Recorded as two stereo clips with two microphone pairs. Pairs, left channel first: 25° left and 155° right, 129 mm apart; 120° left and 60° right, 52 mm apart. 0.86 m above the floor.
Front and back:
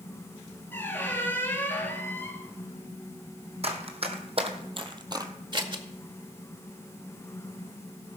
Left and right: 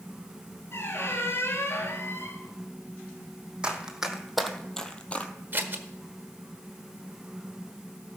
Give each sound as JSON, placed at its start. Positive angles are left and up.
{"t": 0.7, "sound": "a squeak", "azimuth_deg": 95, "distance_m": 1.6}
{"t": 3.6, "sound": "running footsteps", "azimuth_deg": -130, "distance_m": 1.8}
{"t": 5.5, "sound": "scissors", "azimuth_deg": -105, "distance_m": 1.1}